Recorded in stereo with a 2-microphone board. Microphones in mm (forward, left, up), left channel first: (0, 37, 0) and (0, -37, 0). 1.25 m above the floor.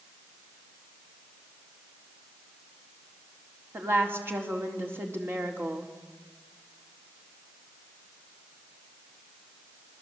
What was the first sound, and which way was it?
A woman speaking, 35° right (ahead or behind).